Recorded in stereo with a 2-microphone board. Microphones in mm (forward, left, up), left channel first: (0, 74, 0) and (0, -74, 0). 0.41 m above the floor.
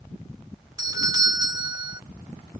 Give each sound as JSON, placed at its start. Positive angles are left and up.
{"t": 0.8, "sound": "a doorbell", "side_deg": -25}